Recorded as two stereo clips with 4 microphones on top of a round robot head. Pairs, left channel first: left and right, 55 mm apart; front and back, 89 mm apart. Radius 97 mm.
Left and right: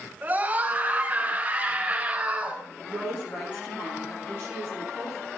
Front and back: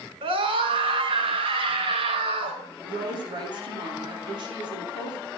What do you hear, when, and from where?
0.2 s a scream: 155° right, 6 m; by 2.6 s 165° right, 7 m
2.8 s a woman speaking: 145° left, 8 m